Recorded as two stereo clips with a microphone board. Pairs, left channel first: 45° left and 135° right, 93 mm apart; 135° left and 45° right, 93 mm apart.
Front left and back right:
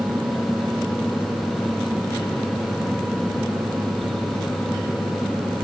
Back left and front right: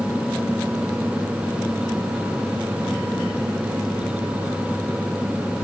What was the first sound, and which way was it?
Only background noise.